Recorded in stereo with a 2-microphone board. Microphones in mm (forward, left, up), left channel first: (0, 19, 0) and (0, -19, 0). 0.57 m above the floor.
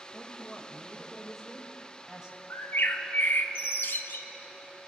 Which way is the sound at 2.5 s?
65° left (ahead or behind).